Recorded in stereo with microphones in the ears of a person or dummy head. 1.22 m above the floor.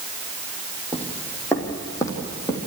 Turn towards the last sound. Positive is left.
turn(degrees=15)  # may be behind; listen again after turning